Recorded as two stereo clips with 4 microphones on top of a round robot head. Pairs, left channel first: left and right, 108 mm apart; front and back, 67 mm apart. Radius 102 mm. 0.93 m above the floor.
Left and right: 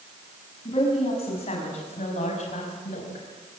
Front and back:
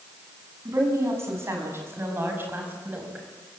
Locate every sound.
0.7 s a woman speaking: 130° left, 6.5 m; by 3.3 s 115° left, 5 m